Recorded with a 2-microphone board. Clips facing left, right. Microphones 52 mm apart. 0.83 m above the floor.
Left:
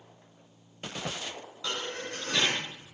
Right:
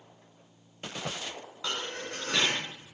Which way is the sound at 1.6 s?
25° right (ahead or behind).